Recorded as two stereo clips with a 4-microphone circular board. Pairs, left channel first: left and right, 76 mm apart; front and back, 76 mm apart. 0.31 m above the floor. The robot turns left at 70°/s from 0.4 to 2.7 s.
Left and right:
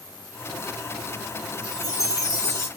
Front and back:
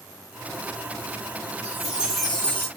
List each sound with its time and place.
1.6 s a chime: 130° left, 1.5 m; by 2.7 s 55° left, 1.5 m